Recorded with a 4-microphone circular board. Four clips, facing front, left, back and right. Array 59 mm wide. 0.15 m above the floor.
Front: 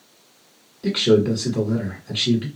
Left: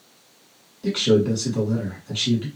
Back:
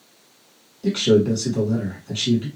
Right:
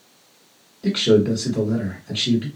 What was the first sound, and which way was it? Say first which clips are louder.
A man speaking: right 2 dB, even; 30° right.